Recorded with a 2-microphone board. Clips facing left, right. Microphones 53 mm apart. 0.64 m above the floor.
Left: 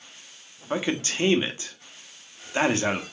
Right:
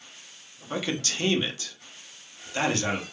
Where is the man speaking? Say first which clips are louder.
Left 3 dB; 25° left (ahead or behind), 0.6 m.